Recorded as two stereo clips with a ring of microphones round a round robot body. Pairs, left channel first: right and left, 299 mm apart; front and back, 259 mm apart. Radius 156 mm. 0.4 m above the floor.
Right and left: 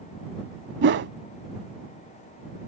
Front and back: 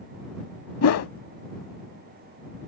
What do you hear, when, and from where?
0.8 s a whoosh: 35° left